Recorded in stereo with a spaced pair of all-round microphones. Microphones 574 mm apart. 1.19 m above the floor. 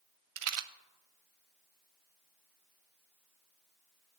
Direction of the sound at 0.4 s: 70° right (ahead or behind).